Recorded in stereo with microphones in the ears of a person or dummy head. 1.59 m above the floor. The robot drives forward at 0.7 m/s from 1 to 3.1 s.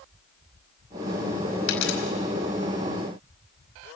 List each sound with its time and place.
1.7 s a dropped coin: 70° left (ahead or behind), 5 m